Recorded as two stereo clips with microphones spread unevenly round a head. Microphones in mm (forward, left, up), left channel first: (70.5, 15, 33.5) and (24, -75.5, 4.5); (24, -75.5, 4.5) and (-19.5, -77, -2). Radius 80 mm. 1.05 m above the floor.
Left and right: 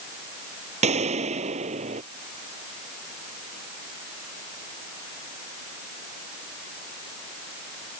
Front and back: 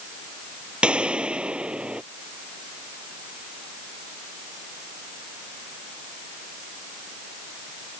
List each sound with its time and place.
0.8 s a gunshot: 110° right